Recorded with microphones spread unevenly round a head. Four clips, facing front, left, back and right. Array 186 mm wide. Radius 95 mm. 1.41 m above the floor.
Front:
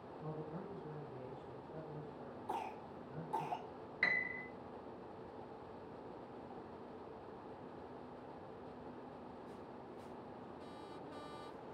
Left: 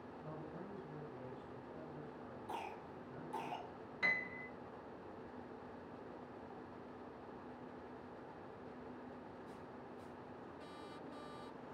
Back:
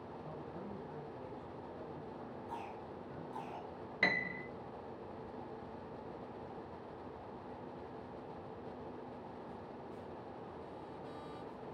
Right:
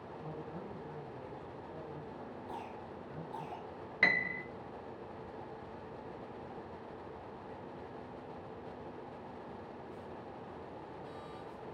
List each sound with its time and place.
0.2 s a man speaking: 40° right, 6 m; by 3.5 s 65° right, 5.5 m
2.5 s a cough: straight ahead, 4 m
4.0 s a piano: 135° right, 0.7 m